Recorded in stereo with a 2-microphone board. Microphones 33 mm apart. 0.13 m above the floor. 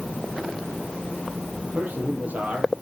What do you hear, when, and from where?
1.6 s a man speaking: 60° right (ahead or behind), 3.5 m